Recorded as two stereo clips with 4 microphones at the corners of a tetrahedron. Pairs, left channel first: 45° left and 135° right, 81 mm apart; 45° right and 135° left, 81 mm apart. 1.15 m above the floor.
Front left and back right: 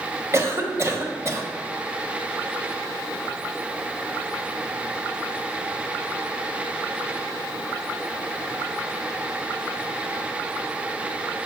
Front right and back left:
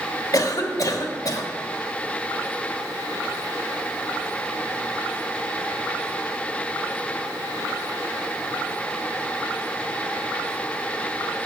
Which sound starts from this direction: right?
A cough, at 0.3 s.